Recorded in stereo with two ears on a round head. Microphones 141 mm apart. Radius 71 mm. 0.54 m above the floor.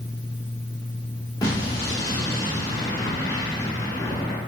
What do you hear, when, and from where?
1.4 s an explosion: 20° left (ahead or behind), 0.8 m